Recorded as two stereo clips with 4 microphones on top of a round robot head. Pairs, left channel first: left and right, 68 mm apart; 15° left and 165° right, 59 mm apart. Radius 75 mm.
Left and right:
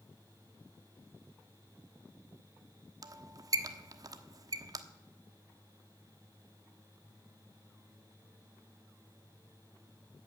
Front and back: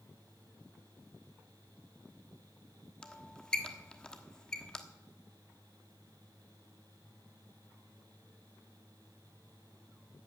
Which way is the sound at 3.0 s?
65° right.